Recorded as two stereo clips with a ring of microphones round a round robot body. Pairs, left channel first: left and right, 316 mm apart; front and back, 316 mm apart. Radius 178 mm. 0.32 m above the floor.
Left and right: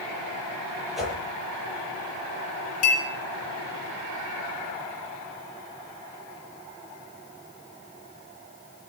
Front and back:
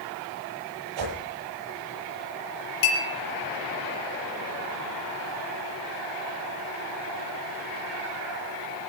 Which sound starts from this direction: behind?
A whoosh, at 1.0 s.